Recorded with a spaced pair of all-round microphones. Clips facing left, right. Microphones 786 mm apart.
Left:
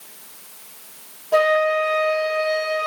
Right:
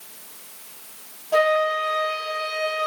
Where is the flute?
10° left (ahead or behind), 0.6 m.